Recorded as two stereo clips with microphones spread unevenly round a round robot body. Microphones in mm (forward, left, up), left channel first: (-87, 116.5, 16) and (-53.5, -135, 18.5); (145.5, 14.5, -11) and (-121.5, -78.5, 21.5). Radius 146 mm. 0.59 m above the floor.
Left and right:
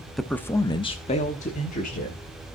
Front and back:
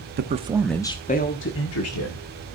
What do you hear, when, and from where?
0.2 s a man speaking: 175° right, 0.8 m; by 2.2 s 35° left, 1.6 m